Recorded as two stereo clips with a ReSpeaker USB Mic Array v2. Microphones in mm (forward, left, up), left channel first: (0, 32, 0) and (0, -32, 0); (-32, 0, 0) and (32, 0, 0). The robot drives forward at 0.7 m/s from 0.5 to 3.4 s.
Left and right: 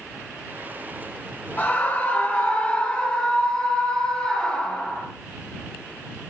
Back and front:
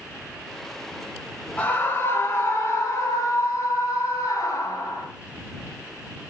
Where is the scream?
130° left, 1.3 m; by 5.0 s 160° left, 2 m.